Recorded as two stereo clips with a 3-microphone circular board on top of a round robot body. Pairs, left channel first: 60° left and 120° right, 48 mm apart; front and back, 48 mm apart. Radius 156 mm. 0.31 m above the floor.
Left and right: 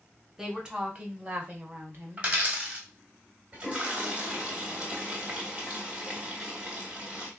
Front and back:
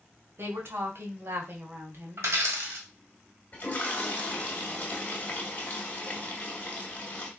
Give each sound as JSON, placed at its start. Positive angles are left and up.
{"t": 0.4, "sound": "a woman speaking", "azimuth_deg": 170, "distance_m": 1.4}
{"t": 2.2, "sound": "a dropped coin", "azimuth_deg": -175, "distance_m": 1.6}
{"t": 3.5, "sound": "a toilet flushing", "azimuth_deg": -55, "distance_m": 1.4}